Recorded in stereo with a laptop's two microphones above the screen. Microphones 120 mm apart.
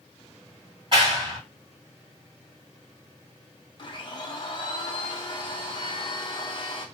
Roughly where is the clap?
Right.